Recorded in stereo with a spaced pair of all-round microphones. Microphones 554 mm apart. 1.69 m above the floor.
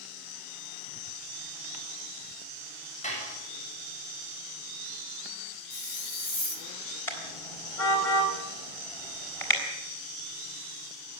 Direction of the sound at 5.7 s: 55° left (ahead or behind).